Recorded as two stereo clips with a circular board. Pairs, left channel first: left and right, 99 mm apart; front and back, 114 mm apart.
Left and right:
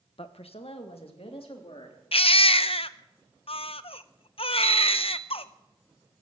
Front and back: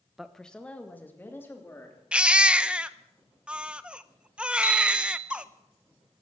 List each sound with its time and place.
0.2 s a woman speaking: 95° left, 1.0 m; by 2.0 s 65° left, 3.5 m
2.1 s a baby crying: 100° left, 0.5 m
4.6 s a bicycle bell: 165° left, 9.5 m